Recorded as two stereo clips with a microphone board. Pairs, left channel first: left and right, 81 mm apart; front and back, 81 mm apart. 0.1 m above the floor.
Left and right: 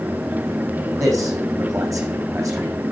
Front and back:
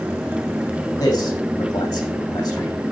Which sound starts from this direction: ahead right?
A man speaking, at 1.0 s.